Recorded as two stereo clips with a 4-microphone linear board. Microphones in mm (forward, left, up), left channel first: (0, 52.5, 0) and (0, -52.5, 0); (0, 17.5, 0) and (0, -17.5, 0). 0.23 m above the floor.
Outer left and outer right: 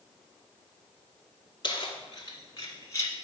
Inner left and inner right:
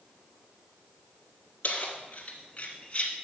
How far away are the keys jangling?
About 2.5 m.